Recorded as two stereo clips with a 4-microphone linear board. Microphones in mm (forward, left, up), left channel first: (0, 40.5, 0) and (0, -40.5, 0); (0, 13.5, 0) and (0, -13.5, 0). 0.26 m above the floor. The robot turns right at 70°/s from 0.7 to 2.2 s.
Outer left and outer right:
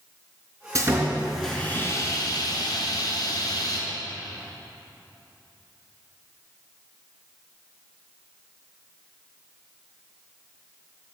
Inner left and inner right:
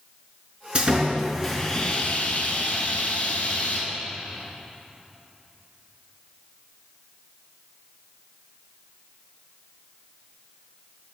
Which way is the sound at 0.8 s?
45° right.